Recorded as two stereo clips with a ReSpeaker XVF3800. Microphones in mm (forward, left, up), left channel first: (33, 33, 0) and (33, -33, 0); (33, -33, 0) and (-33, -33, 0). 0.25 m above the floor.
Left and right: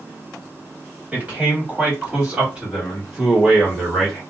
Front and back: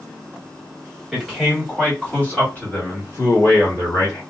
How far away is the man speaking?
About 1.6 m.